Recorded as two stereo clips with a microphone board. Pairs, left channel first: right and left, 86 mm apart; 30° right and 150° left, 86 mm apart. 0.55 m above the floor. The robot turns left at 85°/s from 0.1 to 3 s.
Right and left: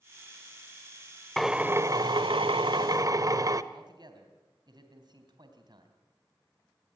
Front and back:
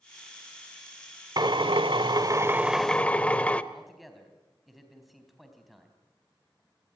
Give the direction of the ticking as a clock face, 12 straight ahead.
I don't hear ticking.